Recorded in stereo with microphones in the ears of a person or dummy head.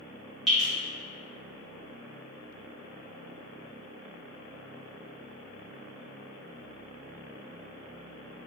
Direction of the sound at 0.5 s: 5° left (ahead or behind).